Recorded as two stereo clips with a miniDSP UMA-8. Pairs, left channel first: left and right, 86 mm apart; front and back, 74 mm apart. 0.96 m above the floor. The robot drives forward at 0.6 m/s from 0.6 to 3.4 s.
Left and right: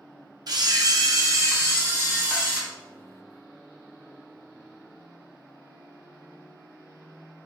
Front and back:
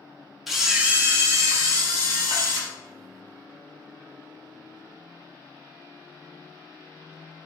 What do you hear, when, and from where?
0.5 s a camera shutter: 90° right, 0.6 m; by 2.6 s 160° right, 1.3 m